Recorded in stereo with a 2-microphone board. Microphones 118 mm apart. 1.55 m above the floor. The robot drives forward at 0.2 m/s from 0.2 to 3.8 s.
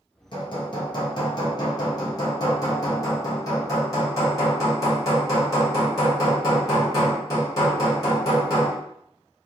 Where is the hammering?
45° left (ahead or behind), 1.0 m; by 8.8 s 30° left (ahead or behind), 1.4 m.